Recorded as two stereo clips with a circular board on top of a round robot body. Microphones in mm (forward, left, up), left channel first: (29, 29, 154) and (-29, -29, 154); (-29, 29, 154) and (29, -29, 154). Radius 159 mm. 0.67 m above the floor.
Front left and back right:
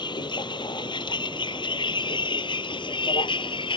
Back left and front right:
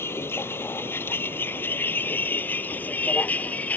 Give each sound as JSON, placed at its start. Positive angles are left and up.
{"t": 0.0, "sound": "a vehicle", "azimuth_deg": 75}